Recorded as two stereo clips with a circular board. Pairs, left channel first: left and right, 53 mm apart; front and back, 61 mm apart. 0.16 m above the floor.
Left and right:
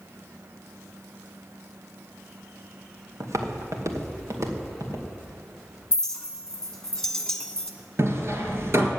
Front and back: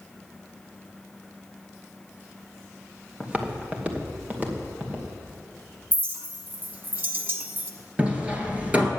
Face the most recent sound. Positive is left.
turn(degrees=-115)